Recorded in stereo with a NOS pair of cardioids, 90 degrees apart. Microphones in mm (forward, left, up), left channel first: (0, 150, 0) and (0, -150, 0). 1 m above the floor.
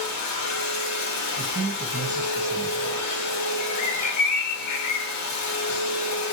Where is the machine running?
60° left, 1.1 m.